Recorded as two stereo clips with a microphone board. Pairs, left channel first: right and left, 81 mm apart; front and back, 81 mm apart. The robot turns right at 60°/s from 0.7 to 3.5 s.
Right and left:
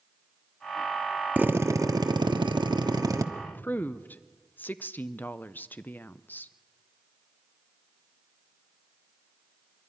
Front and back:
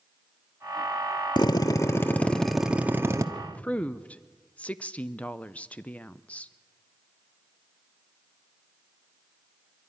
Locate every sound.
1.4 s a drill: 20° left, 1.1 m; by 3.2 s 135° left, 1.1 m
3.4 s a woman speaking: 65° right, 0.5 m; by 6.5 s 55° right, 0.5 m